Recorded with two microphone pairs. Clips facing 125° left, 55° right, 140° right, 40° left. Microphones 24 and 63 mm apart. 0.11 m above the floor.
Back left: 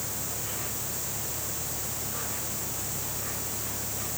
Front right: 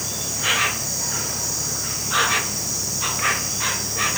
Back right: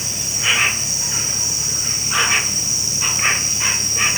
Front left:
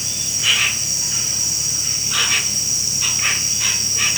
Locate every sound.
0.0 s an insect: 75° right